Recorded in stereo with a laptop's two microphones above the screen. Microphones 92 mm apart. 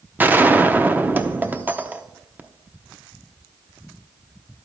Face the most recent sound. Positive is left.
turn(degrees=-20)  # may be behind; listen again after turning